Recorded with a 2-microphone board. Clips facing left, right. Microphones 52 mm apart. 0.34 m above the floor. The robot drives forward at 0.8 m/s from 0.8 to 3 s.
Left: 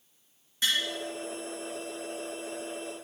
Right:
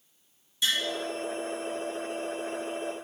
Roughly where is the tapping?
Left.